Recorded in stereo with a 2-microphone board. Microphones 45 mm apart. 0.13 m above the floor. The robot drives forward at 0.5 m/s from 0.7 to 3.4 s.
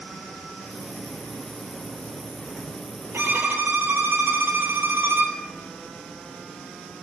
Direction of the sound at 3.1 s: 60° right (ahead or behind).